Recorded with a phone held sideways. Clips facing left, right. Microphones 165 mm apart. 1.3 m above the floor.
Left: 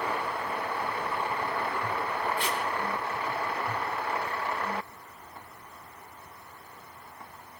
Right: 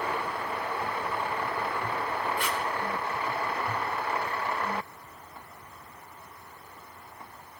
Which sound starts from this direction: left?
Tape being pulled, at 2.4 s.